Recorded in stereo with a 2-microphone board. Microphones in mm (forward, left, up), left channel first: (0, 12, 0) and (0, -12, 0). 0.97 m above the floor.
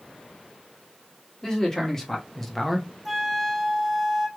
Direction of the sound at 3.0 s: 5° left (ahead or behind).